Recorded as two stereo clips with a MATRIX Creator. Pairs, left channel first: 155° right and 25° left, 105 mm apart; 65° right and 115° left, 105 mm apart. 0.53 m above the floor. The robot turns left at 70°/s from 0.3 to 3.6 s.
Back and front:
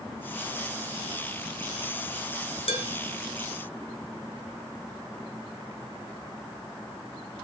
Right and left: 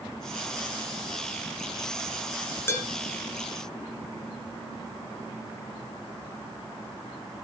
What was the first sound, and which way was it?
Dishes clattering, 135° right.